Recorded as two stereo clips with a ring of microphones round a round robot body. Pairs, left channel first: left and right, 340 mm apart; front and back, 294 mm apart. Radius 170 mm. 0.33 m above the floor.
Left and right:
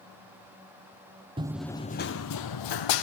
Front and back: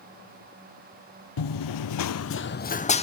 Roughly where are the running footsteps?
Ahead.